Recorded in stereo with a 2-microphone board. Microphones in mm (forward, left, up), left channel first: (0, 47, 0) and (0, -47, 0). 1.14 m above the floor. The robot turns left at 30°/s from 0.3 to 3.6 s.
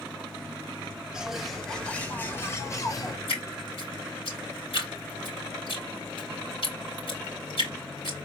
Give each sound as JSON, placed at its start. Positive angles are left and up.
{"t": 1.1, "sound": "a bird", "azimuth_deg": -170, "distance_m": 1.1}
{"t": 3.3, "sound": "dripping", "side_deg": 75, "distance_m": 4.0}